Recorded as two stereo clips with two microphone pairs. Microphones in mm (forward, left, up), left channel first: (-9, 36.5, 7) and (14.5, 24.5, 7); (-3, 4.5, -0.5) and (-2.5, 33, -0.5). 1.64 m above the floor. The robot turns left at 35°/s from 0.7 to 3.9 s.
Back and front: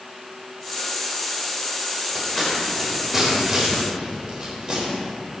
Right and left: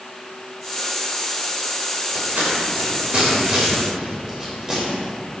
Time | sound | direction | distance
2.1 | scissors | 85° left | 3.5 m